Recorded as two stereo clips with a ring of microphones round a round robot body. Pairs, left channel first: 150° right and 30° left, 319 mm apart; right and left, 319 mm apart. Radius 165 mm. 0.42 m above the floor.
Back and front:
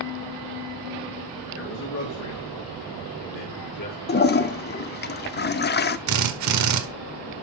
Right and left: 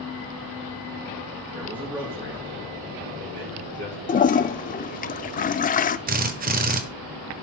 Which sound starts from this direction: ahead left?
A drill, at 6.1 s.